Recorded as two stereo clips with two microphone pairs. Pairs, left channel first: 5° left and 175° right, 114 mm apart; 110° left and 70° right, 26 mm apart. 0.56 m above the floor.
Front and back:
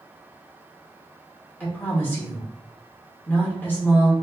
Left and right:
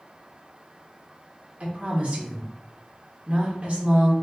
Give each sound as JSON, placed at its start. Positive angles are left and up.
{"t": 1.6, "sound": "a woman speaking", "azimuth_deg": -65, "distance_m": 1.4}